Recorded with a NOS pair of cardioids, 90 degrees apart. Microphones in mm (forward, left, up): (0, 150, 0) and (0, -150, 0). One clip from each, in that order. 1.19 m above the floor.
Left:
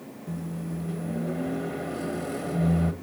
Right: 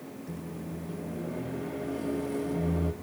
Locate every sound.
0.3 s a microwave: 45° left, 1.2 m